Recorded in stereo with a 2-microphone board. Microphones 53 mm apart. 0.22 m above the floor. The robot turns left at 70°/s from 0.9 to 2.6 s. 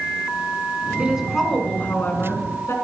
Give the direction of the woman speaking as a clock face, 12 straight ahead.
5 o'clock.